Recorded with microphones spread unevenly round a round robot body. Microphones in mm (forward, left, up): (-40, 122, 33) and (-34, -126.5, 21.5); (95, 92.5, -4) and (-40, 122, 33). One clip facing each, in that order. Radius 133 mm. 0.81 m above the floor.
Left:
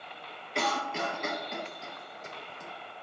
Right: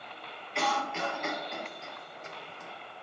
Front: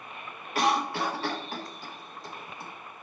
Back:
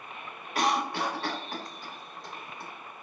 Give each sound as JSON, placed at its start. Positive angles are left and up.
{"t": 0.6, "sound": "a cough", "azimuth_deg": 60, "distance_m": 0.7}